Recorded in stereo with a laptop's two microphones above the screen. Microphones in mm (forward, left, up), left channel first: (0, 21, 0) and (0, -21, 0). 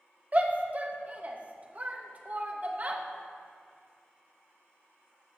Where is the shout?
35° right (ahead or behind), 0.9 m.